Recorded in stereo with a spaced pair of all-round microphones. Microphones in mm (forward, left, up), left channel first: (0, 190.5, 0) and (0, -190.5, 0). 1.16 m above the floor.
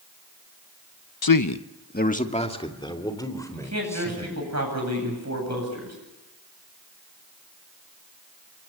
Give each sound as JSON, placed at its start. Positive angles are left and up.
{"t": 1.2, "sound": "a man speaking", "side_deg": 70, "distance_m": 0.7}
{"t": 3.5, "sound": "a man speaking", "side_deg": -45, "distance_m": 9.0}